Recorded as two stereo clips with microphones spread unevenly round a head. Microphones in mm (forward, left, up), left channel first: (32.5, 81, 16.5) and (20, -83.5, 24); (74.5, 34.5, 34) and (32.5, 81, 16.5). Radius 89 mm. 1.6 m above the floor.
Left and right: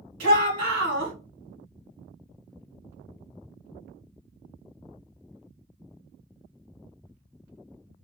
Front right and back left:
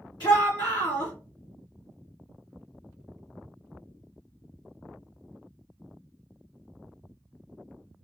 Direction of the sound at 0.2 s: 90° right.